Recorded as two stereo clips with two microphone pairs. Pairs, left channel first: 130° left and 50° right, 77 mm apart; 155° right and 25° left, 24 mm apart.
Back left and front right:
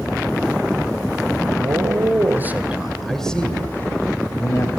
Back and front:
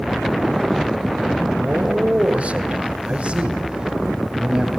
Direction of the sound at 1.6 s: 15° right.